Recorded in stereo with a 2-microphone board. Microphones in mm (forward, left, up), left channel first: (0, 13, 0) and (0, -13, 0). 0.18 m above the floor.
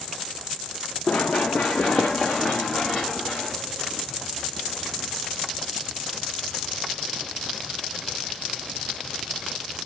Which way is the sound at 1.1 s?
75° left (ahead or behind).